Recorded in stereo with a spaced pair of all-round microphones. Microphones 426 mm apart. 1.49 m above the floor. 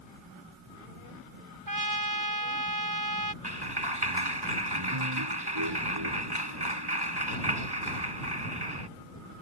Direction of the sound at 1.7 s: 50° right (ahead or behind).